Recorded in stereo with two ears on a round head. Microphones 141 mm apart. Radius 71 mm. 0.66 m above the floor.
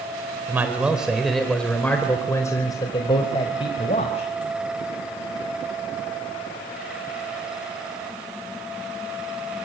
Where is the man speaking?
15° right (ahead or behind), 3.5 m; by 4.3 s 40° left (ahead or behind), 4.5 m.